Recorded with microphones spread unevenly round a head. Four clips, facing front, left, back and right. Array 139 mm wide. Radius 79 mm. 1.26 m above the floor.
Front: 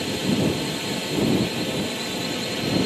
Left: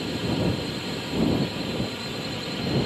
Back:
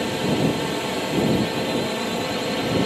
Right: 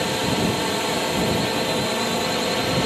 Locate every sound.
0.0 s a drone: 130° right